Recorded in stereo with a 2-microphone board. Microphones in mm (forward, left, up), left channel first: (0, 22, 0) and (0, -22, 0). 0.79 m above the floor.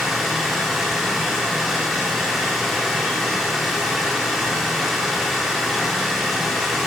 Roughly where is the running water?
Centre.